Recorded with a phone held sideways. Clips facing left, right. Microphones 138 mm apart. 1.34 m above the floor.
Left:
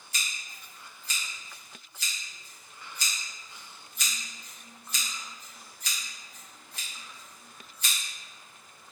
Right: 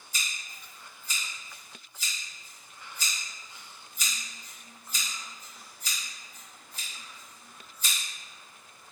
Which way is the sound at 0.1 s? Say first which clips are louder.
Even; 70° left (ahead or behind).